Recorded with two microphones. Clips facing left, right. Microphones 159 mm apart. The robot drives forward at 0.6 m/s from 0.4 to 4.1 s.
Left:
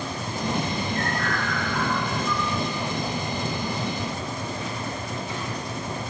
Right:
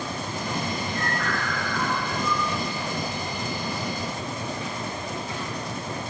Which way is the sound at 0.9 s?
40° left (ahead or behind).